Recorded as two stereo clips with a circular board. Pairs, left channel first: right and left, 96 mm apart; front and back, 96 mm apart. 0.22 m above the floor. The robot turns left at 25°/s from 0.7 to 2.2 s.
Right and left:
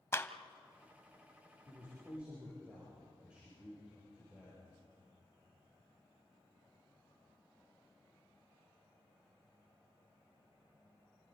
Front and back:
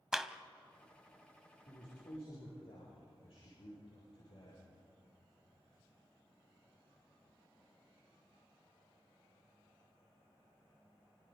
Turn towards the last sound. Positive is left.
turn(degrees=10)